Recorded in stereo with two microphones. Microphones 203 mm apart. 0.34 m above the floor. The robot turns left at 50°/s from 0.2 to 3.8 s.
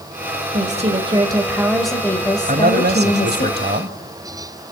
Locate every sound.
0.5 s a woman speaking: 115° right, 1.6 m; by 3.5 s 100° left, 1.6 m
2.5 s a man speaking: 55° right, 1.5 m; by 4.0 s 120° right, 1.5 m